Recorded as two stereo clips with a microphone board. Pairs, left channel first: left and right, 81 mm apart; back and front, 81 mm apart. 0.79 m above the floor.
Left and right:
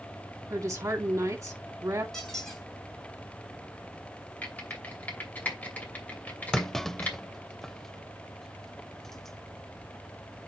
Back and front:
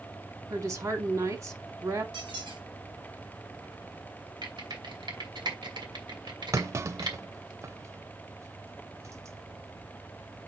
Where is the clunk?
5° left, 0.6 m.